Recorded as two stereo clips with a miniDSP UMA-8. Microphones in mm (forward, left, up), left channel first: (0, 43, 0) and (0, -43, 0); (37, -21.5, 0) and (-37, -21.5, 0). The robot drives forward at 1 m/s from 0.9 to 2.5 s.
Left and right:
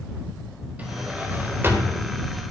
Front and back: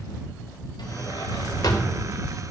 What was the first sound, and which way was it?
A drawer, 20° right.